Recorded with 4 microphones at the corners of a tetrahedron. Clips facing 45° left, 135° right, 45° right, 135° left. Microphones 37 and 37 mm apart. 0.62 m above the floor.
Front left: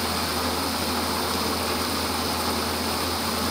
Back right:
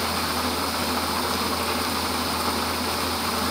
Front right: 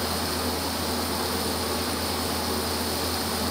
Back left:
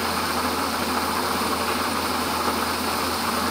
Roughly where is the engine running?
Behind left.